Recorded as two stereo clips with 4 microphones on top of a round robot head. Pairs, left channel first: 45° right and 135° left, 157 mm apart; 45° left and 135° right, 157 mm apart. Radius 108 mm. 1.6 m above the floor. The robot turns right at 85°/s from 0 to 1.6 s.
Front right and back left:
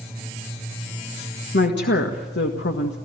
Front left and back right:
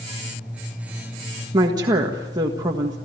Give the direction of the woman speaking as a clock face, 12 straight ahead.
2 o'clock.